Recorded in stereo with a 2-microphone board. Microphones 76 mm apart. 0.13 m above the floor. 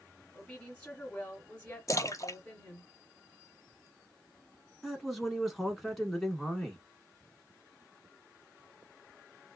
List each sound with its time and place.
0.3 s a woman speaking: 15° left (ahead or behind), 1.8 m
1.9 s a splash: 45° left (ahead or behind), 0.5 m
4.8 s a man speaking: centre (ahead or behind), 1.1 m